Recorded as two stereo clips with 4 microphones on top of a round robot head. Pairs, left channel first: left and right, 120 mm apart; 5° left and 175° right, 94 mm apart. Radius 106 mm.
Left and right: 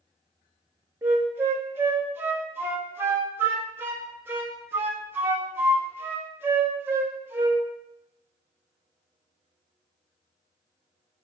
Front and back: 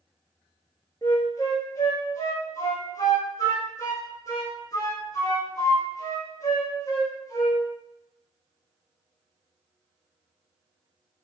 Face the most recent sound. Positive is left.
turn(degrees=-35)